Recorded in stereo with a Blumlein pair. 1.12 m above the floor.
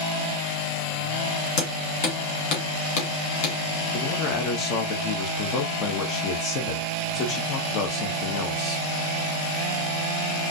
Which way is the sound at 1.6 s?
40° left.